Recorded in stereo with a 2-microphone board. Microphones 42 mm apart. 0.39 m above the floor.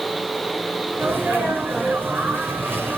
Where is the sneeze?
60° right (ahead or behind), 5 m.